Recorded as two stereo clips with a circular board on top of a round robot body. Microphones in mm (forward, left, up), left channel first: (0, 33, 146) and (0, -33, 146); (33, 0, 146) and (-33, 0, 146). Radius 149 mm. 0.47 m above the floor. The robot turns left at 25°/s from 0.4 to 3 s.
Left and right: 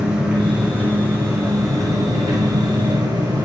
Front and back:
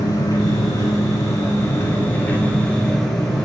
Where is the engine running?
15° right, 4.5 m; by 3.5 s 80° right, 4.5 m.